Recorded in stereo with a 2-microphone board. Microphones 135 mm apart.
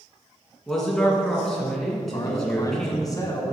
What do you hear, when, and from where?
0.7 s a man speaking: centre (ahead or behind), 2.5 m
2.0 s a man speaking: 30° left (ahead or behind), 1.7 m